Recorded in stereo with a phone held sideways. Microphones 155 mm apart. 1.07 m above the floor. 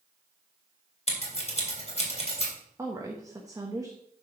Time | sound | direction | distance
1.1 | scissors | 40° left (ahead or behind) | 3.5 m
2.8 | a woman speaking | 20° right (ahead or behind) | 1.2 m